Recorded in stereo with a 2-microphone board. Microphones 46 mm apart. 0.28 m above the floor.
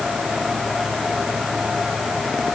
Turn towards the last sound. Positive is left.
No sound to turn to.